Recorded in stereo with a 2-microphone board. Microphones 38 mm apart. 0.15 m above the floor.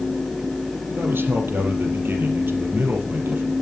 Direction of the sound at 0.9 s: 70° right (ahead or behind).